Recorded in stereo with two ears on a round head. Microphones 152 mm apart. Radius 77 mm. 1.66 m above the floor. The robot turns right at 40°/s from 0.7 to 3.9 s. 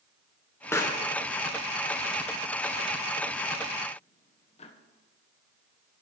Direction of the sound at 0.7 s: 15° left (ahead or behind).